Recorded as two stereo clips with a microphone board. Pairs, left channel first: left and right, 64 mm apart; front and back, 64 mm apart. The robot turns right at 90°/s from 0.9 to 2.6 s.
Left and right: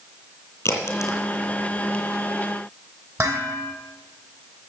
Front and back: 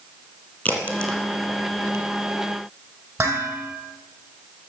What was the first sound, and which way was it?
A crack, 65° left.